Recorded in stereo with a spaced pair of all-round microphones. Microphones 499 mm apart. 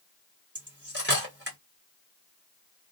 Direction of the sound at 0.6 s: 20° right (ahead or behind).